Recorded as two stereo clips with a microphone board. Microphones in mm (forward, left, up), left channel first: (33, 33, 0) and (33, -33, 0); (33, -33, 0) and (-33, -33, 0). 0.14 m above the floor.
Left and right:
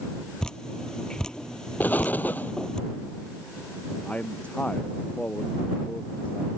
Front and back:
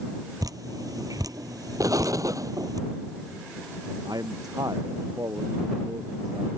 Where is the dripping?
170° left.